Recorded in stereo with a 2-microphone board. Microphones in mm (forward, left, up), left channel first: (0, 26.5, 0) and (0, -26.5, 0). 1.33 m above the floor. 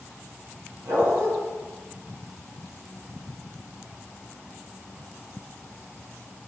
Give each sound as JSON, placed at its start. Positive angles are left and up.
{"t": 0.8, "sound": "a dog barking", "side_deg": -75, "distance_m": 3.5}